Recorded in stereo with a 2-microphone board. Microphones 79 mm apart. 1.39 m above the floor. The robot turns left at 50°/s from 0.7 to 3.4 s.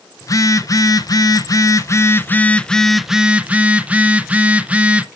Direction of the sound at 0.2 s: 115° left.